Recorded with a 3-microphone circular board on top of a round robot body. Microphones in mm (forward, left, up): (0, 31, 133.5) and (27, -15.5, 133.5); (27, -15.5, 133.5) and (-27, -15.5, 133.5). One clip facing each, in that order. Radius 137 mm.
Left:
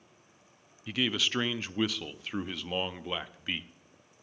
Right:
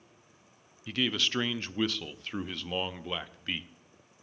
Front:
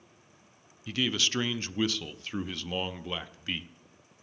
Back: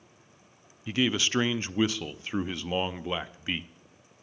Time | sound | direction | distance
0.9 | a man speaking | 165° right | 0.6 m